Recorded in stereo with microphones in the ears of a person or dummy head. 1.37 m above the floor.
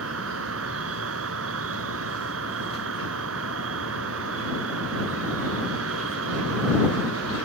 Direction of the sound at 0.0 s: 80° right.